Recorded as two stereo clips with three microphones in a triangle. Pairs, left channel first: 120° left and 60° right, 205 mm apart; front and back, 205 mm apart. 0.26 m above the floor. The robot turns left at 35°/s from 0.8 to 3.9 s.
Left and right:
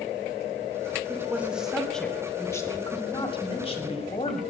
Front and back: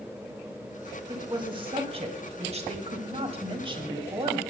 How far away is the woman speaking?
About 1.7 m.